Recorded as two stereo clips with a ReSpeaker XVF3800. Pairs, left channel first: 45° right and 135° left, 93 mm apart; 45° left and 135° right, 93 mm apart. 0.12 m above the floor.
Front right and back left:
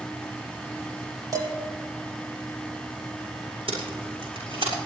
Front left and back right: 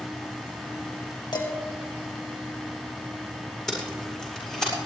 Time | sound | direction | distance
1.3 | dishes clattering | 85° left | 2.5 m
3.7 | tape being pulled | 130° left | 7 m